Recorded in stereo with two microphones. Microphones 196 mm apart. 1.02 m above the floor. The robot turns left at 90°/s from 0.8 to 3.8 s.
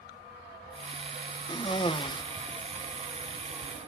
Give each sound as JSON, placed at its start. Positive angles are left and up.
{"t": 1.5, "sound": "a cough", "side_deg": 20, "distance_m": 0.8}